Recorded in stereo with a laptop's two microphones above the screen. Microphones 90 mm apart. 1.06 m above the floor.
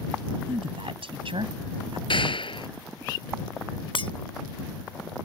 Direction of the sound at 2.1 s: 70° left (ahead or behind).